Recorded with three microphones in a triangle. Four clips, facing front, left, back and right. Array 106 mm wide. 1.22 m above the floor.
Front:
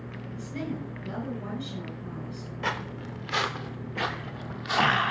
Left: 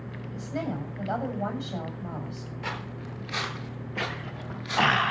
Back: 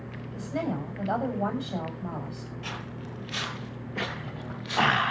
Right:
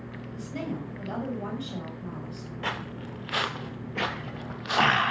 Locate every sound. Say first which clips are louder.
0.3 s a woman speaking: left 2 dB, back 4 dB; 165° left, 7.5 m
2.6 s footsteps: right 3 dB, front 9 dB; 35° right, 1.8 m; by 5.1 s 55° right, 3 m